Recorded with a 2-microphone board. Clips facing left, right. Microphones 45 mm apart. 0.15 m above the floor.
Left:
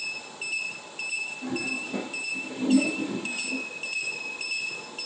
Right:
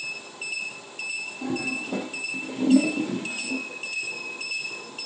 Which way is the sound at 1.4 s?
65° right (ahead or behind).